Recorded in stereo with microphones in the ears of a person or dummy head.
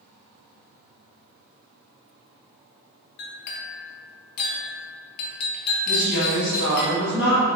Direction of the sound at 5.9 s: 70° left (ahead or behind).